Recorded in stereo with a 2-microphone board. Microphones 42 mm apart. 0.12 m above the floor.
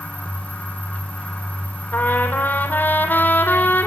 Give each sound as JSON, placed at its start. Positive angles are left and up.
{"t": 1.9, "sound": "a trumpet", "side_deg": 50, "distance_m": 4.5}